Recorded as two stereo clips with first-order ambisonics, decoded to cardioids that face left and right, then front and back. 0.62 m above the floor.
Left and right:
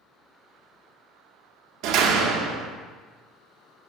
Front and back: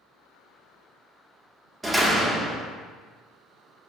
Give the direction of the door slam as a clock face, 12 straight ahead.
3 o'clock.